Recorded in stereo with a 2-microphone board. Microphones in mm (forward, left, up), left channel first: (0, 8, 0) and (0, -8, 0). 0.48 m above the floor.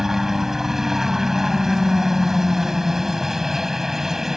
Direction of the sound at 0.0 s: 25° right (ahead or behind).